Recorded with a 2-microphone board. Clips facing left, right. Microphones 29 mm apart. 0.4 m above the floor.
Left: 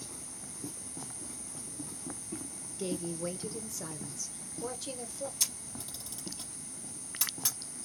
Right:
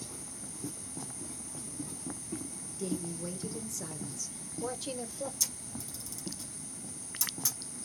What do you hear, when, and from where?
2.8 s a woman speaking: 35° left (ahead or behind), 0.9 m; by 5.3 s 15° right (ahead or behind), 1.2 m
5.4 s a camera shutter: 35° left (ahead or behind), 3.5 m